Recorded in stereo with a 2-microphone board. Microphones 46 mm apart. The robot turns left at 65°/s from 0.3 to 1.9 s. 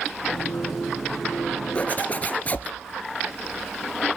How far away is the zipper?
About 1.9 m.